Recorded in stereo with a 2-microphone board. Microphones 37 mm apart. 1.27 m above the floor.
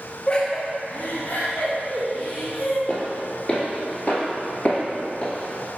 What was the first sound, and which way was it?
Laughter, 25° left (ahead or behind).